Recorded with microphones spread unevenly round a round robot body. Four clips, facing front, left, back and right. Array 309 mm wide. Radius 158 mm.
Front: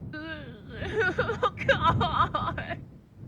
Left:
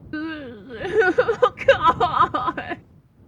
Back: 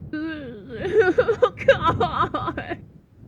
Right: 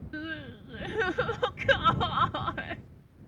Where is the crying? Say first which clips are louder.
Left 10 dB, back 12 dB; 145° left.